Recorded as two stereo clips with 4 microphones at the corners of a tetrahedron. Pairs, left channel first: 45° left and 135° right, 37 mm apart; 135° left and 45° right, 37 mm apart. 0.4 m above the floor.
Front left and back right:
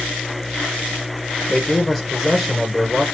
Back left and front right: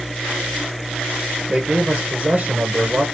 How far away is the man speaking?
About 1.0 m.